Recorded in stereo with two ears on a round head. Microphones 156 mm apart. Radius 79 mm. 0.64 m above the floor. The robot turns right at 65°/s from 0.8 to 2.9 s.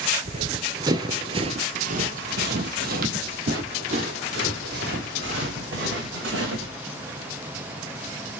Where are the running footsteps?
40° right (ahead or behind), 0.7 m; by 6.8 s 70° right (ahead or behind), 3.5 m.